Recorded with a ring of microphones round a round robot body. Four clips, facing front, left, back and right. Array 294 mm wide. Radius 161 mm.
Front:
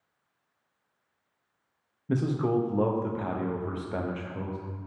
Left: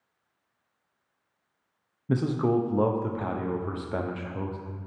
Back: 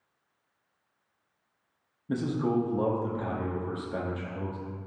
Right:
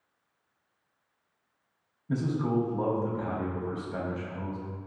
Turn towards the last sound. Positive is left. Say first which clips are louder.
# left 4 dB, front 1 dB
turn(degrees=70)